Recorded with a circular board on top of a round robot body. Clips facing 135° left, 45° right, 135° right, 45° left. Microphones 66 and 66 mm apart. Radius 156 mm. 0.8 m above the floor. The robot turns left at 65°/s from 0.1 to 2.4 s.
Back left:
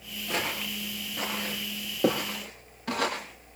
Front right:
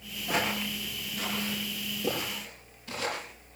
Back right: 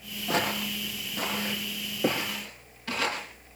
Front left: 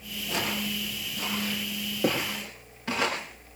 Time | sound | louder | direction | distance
0.3 | footsteps | front right 2 dB, back right 3 dB | 120° right | 7 m